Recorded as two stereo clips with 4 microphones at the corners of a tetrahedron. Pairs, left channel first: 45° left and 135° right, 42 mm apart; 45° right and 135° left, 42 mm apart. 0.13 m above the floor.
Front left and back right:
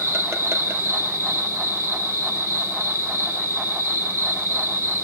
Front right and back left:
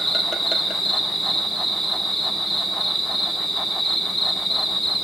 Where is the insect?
135° right, 2.5 m.